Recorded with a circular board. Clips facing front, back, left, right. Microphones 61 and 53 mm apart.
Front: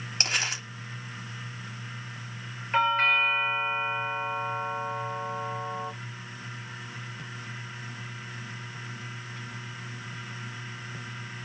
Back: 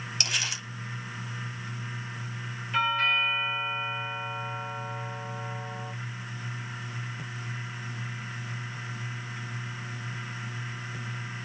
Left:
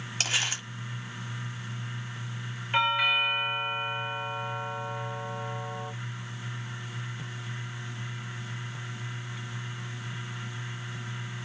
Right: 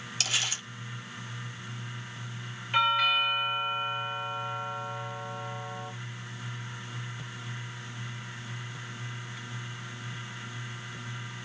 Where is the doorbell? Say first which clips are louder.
Front 3 dB, even; 20° left, 1.1 m.